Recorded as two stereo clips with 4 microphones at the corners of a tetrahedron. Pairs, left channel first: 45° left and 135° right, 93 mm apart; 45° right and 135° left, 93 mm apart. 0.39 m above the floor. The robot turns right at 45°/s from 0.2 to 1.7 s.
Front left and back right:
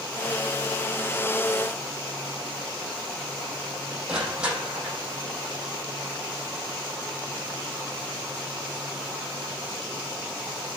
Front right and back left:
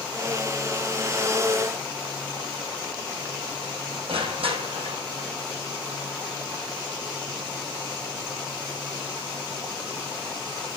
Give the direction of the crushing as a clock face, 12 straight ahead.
7 o'clock.